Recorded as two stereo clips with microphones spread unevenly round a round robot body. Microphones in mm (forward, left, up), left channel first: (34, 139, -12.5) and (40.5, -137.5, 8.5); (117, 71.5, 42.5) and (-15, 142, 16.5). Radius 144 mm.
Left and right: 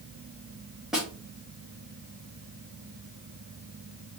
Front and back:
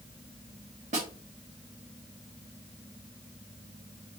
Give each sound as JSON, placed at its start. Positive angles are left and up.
{"t": 0.9, "sound": "a snare drum", "azimuth_deg": 180, "distance_m": 1.5}